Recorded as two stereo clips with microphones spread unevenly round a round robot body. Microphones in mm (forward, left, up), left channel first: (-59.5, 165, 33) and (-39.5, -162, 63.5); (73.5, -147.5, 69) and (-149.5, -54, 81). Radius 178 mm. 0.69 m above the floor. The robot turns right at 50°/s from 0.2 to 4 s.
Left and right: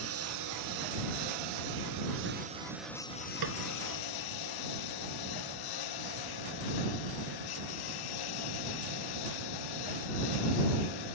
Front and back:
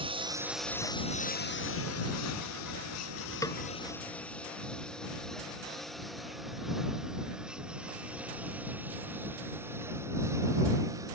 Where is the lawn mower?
135° right; by 11.1 s 80° left.